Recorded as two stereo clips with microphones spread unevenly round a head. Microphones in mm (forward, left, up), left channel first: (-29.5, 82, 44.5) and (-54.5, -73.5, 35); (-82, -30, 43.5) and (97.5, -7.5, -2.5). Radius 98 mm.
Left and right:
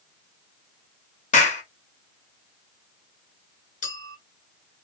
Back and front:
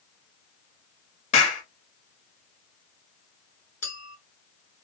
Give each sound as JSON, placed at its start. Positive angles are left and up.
{"t": 1.3, "sound": "a clap", "azimuth_deg": 125, "distance_m": 0.9}
{"t": 3.8, "sound": "a clink", "azimuth_deg": 115, "distance_m": 1.2}